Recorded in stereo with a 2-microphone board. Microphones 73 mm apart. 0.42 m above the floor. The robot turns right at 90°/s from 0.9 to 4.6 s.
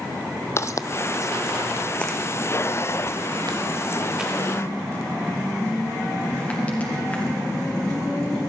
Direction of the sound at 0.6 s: 40° left (ahead or behind).